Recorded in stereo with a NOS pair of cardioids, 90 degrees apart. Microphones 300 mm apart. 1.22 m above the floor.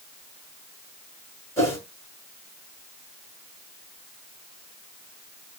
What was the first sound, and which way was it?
A whoosh, 10° left.